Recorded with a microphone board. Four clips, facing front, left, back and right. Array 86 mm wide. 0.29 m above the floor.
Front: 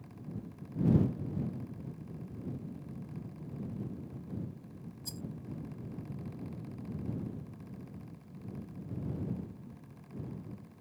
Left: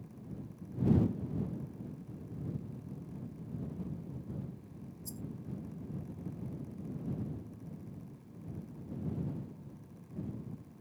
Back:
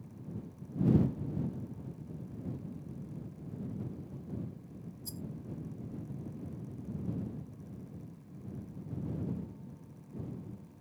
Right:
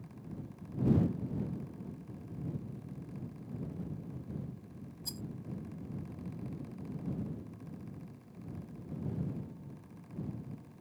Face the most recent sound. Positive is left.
turn(degrees=-65)